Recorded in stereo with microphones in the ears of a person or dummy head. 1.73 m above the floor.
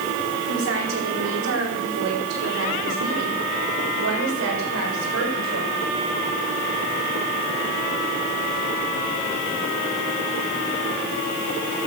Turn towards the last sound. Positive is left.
turn(degrees=-80)